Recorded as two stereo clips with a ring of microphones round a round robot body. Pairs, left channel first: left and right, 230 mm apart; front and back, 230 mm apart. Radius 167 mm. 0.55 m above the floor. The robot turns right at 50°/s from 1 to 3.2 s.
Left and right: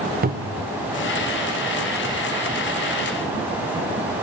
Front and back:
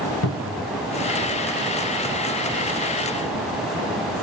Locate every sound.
0.2 s a cupboard door: 35° right, 0.9 m